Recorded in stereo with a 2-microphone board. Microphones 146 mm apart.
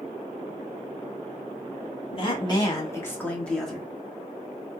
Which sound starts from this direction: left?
A woman speaking, at 2.1 s.